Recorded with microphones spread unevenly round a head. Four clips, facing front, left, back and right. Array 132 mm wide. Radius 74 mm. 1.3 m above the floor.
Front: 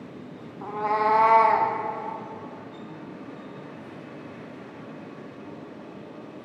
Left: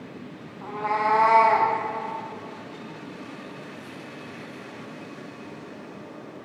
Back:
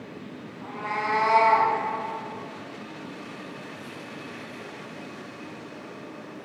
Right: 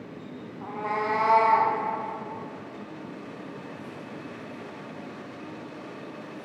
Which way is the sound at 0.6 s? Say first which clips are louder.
Left 4 dB, front 6 dB; 25° right.